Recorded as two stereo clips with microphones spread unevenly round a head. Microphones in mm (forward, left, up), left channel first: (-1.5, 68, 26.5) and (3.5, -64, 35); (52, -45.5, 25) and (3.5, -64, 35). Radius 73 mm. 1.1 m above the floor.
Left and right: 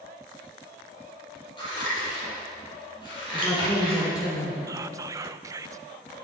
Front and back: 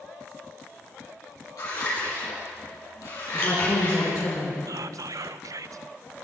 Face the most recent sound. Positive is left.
turn(degrees=-155)